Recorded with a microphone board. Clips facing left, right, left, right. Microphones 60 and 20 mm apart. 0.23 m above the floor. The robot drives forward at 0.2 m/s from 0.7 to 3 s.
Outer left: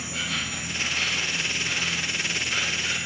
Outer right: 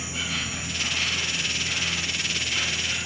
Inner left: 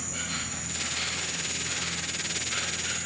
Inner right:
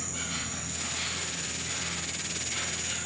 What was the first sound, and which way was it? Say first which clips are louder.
An insect: even, inner left 1 dB; 60° left (ahead or behind).